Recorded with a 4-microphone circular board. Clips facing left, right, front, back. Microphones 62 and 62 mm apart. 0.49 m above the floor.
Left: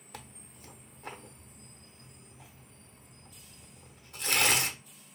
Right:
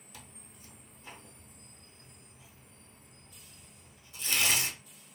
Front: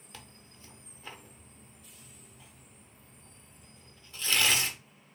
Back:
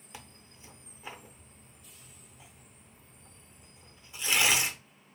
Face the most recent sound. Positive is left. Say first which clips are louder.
# left 6 dB, back 2 dB
turn(degrees=110)